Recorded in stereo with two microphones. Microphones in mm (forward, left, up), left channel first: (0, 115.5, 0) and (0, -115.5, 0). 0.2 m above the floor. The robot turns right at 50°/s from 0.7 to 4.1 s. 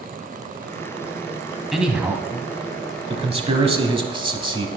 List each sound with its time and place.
1.7 s a man speaking: centre (ahead or behind), 1.1 m; by 4.7 s 20° right (ahead or behind), 1.1 m